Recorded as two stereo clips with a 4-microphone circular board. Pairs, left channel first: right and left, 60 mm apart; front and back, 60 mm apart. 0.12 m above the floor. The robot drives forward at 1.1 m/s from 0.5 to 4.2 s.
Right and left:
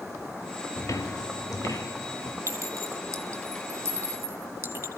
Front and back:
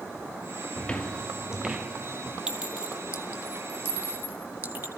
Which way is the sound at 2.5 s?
105° left.